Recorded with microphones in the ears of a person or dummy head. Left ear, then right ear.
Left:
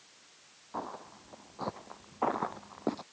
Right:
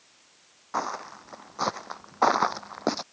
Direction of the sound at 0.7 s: 45° right (ahead or behind).